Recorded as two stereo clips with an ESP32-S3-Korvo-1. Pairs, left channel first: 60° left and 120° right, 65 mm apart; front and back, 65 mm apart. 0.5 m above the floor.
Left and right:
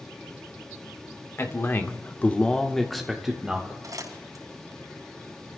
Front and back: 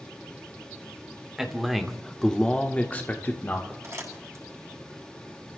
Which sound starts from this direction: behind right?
Crumpling, at 3.8 s.